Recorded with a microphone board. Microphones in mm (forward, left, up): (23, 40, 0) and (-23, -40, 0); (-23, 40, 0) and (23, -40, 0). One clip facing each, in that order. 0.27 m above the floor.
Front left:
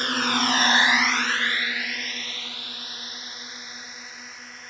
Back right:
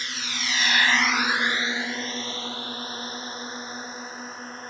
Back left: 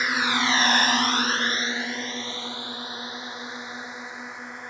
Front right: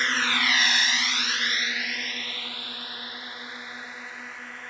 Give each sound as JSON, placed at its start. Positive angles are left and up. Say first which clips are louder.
{"t": 0.0, "sound": "a drone", "louder": "front left 10 dB, back left 2 dB", "azimuth_deg": 40}